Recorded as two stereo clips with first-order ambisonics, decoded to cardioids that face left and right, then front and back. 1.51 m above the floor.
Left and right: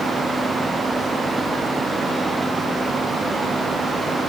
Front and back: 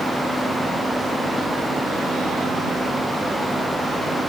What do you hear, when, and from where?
Only background noise.